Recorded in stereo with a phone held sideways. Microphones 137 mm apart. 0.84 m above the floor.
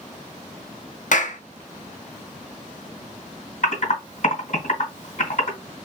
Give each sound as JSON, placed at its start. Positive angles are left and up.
{"t": 1.1, "sound": "a clap", "side_deg": 65, "distance_m": 0.6}
{"t": 3.6, "sound": "typing on a keyboard", "side_deg": 65, "distance_m": 2.0}